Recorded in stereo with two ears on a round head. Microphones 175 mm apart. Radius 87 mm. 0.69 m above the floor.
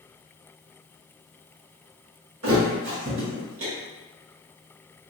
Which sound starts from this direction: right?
A thud, at 2.4 s.